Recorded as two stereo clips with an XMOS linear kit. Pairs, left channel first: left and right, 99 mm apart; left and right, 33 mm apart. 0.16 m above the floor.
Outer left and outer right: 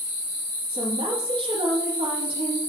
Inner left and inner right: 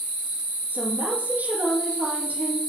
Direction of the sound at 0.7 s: 60° right (ahead or behind).